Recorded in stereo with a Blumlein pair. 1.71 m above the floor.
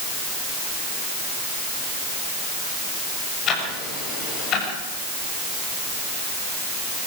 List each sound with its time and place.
3.5 s ticking: 30° left, 7 m